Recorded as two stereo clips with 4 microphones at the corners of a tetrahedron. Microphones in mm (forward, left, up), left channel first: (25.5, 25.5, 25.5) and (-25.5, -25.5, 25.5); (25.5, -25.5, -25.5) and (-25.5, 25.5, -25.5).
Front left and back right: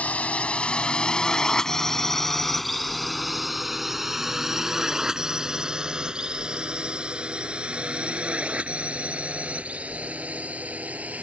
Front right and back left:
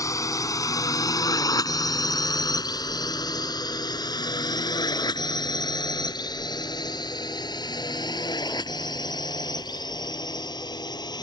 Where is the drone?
20° right; by 11.2 s 65° right.